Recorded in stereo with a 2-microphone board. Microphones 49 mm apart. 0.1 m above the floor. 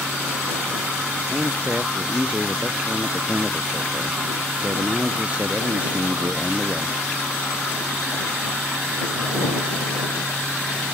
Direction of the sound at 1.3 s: 30° right (ahead or behind).